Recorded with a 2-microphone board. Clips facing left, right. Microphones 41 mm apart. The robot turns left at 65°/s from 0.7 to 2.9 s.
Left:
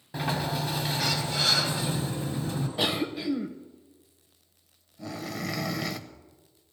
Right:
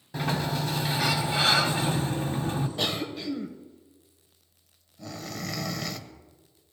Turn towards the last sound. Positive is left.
turn(degrees=5)  # may be behind; listen again after turning